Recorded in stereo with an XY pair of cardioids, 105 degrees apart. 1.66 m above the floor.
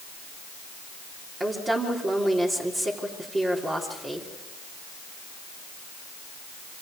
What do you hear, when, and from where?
1.4 s a woman speaking: 30° right, 3.5 m